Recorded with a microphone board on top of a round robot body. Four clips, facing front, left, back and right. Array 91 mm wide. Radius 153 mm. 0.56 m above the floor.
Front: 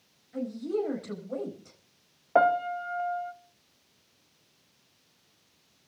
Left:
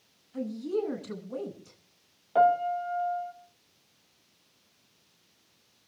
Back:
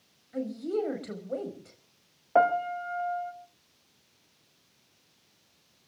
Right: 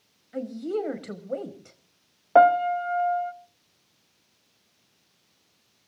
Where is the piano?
80° right, 1.2 m.